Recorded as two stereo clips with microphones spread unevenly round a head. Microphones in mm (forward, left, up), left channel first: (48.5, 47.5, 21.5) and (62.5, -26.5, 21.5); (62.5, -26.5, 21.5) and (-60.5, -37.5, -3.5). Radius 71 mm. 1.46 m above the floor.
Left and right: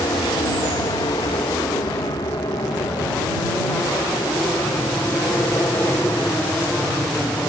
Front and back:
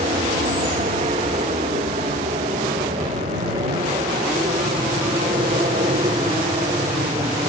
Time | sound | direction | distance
0.0 | an aircraft | 140° left | ?